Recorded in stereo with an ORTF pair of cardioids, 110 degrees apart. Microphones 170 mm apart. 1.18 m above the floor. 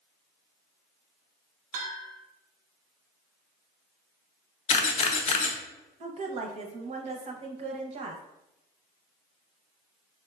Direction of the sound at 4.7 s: 40° left.